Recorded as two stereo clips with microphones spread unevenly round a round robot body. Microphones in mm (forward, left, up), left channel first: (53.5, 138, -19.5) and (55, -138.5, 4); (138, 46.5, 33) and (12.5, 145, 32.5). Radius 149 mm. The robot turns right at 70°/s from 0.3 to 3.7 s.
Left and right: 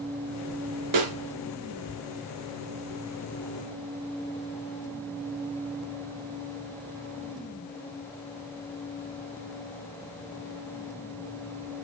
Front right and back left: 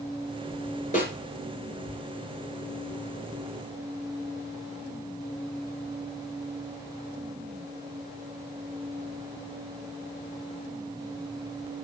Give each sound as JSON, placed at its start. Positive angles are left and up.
{"t": 0.9, "sound": "a snare drum", "azimuth_deg": -105, "distance_m": 2.5}